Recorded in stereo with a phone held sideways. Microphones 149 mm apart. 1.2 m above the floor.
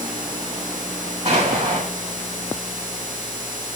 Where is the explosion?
45° right (ahead or behind), 7 m.